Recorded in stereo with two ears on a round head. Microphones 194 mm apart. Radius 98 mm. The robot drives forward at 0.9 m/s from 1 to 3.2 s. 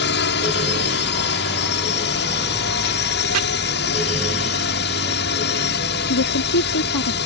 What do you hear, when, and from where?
0.0 s a drone: 55° left (ahead or behind)
3.3 s chopping: 75° right (ahead or behind)
6.1 s a woman speaking: 75° left (ahead or behind)